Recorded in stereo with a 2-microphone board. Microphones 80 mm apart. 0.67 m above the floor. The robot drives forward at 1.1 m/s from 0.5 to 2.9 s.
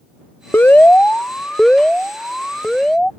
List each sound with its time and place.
0.5 s an alarm: 25° left (ahead or behind); by 3.1 s 5° left (ahead or behind)